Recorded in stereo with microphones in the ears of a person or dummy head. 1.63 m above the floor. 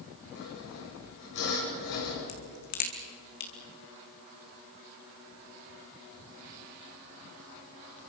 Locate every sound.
0.3 s sawing: 55° left (ahead or behind), 7 m
2.3 s a crack: 50° left (ahead or behind), 3 m